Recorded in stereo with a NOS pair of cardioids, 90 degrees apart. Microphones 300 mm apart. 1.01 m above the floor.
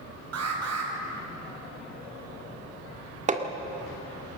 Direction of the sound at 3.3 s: 25° right.